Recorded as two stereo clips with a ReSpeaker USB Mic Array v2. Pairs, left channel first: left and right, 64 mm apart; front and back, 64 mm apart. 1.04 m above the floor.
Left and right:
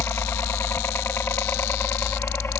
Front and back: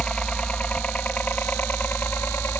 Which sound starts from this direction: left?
A helicopter, at 0.0 s.